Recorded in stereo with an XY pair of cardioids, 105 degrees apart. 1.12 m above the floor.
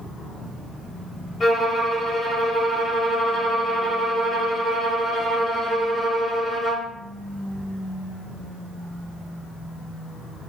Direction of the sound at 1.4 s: 40° left.